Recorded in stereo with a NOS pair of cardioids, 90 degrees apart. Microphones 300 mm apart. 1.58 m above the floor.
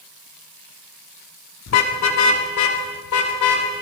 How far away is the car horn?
About 2.5 m.